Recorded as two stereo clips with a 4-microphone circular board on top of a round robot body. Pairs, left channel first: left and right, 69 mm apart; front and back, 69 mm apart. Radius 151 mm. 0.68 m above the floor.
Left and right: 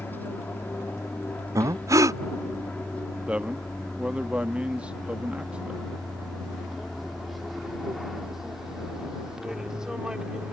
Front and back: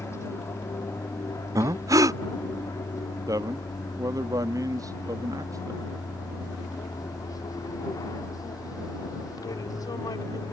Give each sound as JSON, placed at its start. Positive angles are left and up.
{"t": 0.0, "sound": "an aircraft", "azimuth_deg": 35}
{"t": 1.6, "sound": "breathing", "azimuth_deg": -135}
{"t": 3.3, "sound": "a man speaking", "azimuth_deg": -165}